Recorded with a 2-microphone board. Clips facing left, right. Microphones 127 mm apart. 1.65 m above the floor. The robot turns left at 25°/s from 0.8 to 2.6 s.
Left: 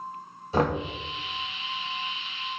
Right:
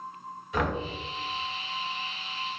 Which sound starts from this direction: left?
Knocking, at 0.5 s.